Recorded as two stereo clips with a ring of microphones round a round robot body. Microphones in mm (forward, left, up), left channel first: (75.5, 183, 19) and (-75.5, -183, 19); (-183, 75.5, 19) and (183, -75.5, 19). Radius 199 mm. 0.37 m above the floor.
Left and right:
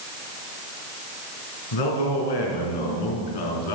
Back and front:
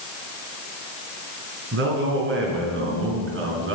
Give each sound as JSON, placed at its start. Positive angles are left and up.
{"t": 1.7, "sound": "a man speaking", "azimuth_deg": 40, "distance_m": 4.0}